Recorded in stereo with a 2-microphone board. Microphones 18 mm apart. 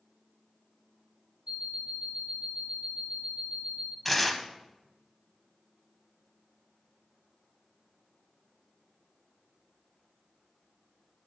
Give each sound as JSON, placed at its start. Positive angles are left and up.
{"t": 1.5, "sound": "an alarm clock", "side_deg": -75, "distance_m": 3.5}
{"t": 4.0, "sound": "tearing paper", "side_deg": 5, "distance_m": 0.7}